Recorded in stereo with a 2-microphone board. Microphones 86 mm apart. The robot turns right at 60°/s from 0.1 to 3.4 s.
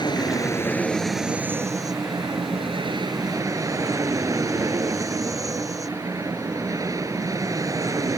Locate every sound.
0.0 s an aircraft: 120° left; by 8.2 s 40° right